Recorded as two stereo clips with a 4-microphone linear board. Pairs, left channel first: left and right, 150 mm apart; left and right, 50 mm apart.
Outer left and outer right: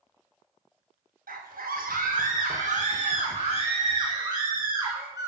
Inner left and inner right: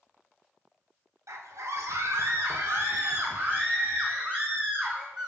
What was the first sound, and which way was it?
A scream, 75° right (ahead or behind).